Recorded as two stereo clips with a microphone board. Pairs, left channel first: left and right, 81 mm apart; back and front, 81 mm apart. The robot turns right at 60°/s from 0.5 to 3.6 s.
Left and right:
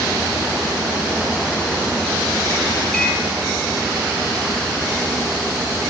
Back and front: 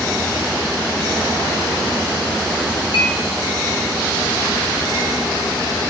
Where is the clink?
170° left, 3 m; by 3.2 s 175° right, 3 m.